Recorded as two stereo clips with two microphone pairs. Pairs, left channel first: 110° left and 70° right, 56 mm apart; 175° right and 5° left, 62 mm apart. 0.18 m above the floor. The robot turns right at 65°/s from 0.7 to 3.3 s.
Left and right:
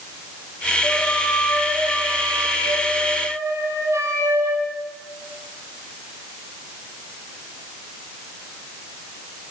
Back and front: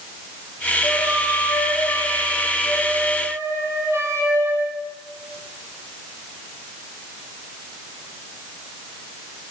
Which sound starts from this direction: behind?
A flute, at 0.8 s.